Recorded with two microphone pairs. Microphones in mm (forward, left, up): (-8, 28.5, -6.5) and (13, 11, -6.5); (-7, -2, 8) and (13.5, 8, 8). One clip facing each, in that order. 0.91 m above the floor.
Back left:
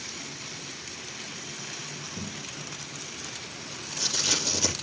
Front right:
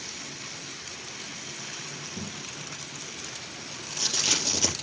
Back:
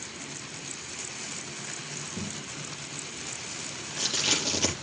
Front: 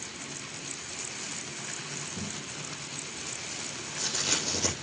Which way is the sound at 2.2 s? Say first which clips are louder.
Even, back 1 dB; 105° right.